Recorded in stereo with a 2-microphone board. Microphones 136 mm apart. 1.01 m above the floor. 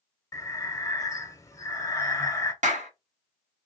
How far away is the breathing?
About 0.8 m.